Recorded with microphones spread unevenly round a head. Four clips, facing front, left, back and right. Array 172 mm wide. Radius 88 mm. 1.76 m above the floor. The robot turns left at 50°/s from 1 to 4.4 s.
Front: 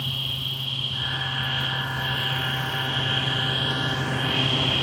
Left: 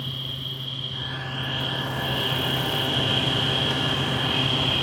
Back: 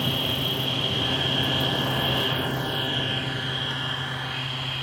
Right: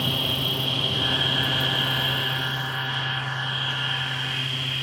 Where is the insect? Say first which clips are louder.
Right 8 dB, back 7 dB; 145° right; by 4.8 s 45° left.